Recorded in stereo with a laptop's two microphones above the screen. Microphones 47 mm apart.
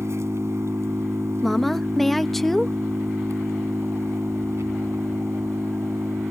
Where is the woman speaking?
5° left (ahead or behind).